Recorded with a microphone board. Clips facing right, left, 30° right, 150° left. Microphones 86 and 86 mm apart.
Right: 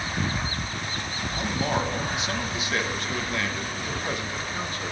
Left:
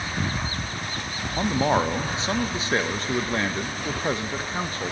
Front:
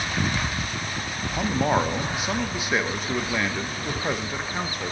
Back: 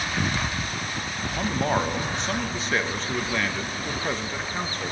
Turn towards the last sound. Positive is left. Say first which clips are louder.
# left 6 dB, front 2 dB
turn(degrees=45)